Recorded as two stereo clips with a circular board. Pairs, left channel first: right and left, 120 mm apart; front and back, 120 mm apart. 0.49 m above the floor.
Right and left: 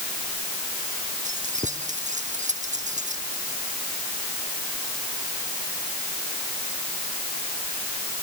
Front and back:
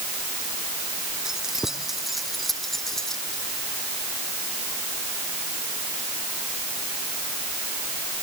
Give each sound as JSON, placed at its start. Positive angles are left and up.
{"t": 1.2, "sound": "keys jangling", "azimuth_deg": 95}